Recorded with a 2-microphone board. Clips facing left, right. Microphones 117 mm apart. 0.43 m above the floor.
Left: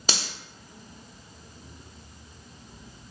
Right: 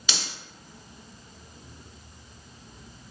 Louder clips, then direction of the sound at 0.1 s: Left 4 dB; 40° left (ahead or behind).